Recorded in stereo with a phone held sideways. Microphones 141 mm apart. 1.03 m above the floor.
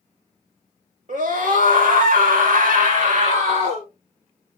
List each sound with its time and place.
1.1 s a scream: 70° right (ahead or behind), 2 m; by 3.9 s 50° right (ahead or behind), 1.8 m